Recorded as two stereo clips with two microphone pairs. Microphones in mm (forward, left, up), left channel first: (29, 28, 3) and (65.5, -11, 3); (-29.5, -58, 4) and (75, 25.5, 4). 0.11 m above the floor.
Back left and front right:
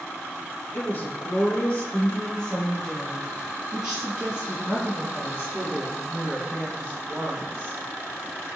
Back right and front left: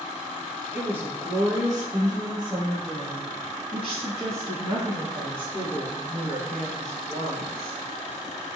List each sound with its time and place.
0.7 s a woman speaking: 110° left, 1.7 m; by 7.8 s 5° right, 3.5 m